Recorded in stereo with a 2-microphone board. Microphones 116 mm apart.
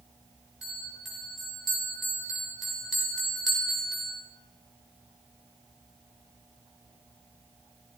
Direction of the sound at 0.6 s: 5° right (ahead or behind).